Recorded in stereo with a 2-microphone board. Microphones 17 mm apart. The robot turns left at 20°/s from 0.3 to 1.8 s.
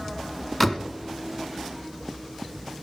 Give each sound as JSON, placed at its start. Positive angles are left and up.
{"t": 0.6, "sound": "a door slam", "side_deg": 10, "distance_m": 1.0}